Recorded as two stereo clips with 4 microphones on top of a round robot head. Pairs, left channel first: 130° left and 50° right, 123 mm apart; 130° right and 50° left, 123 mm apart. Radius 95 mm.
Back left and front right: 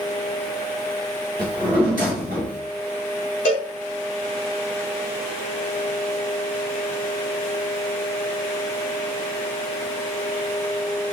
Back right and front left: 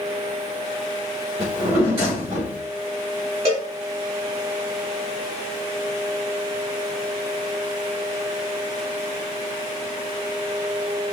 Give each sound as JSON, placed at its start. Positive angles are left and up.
{"t": 1.4, "sound": "a drawer", "azimuth_deg": -25, "distance_m": 1.3}
{"t": 3.5, "sound": "a cowbell", "azimuth_deg": 95, "distance_m": 0.7}